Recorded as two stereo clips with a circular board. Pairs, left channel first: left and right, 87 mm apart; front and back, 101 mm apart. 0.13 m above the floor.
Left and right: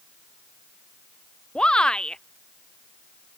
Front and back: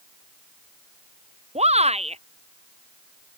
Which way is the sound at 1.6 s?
170° left.